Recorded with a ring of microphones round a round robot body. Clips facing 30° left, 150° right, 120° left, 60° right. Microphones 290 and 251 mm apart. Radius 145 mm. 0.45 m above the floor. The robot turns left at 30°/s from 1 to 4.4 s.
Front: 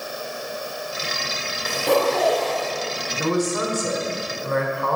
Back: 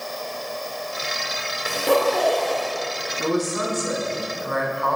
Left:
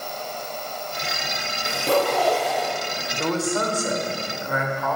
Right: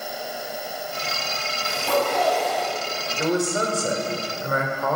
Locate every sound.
1.6 s a zipper: 135° left, 1.5 m; by 2.7 s 100° left, 1.5 m
3.2 s a man speaking: 15° left, 1.3 m; by 5.0 s 20° right, 1.3 m